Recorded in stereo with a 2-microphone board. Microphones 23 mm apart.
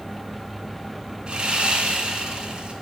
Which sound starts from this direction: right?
Sawing, at 1.3 s.